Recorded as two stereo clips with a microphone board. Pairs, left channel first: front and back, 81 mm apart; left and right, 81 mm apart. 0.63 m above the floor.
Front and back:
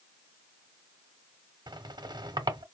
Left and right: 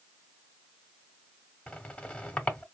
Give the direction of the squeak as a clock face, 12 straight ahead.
7 o'clock.